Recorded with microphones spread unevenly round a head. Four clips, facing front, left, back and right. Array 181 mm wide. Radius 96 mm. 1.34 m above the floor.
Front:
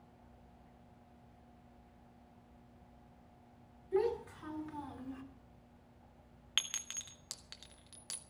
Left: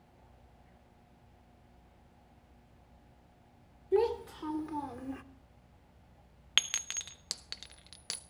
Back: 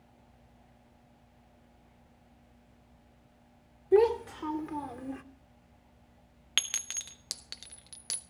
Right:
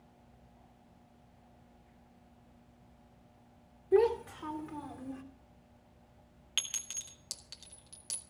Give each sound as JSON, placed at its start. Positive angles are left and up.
{"t": 3.9, "sound": "a child speaking", "azimuth_deg": -175, "distance_m": 2.5}
{"t": 6.6, "sound": "a clink", "azimuth_deg": 130, "distance_m": 1.2}